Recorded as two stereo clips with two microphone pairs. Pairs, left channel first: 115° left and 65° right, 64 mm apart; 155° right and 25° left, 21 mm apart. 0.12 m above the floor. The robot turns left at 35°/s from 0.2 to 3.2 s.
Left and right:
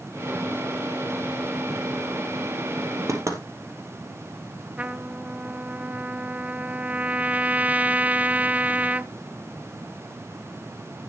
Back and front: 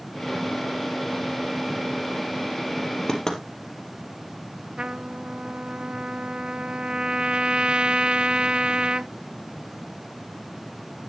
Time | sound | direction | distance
3.1 | knocking | 90° right | 3 m
4.8 | a trumpet | 5° right | 0.6 m